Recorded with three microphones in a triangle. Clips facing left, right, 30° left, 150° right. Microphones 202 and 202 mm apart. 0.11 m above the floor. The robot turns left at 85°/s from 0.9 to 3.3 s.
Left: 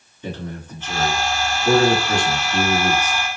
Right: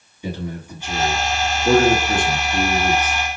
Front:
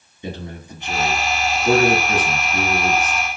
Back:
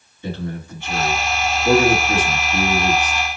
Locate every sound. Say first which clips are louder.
0.2 s a man speaking: right 2 dB, back 3 dB; 25° right, 1.2 m; by 3.2 s 140° left, 1.2 m